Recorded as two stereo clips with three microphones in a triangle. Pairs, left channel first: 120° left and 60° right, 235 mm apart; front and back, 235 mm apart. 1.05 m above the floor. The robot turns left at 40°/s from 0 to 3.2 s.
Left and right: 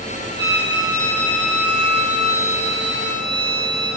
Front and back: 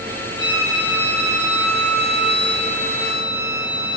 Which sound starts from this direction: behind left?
A violin, at 0.4 s.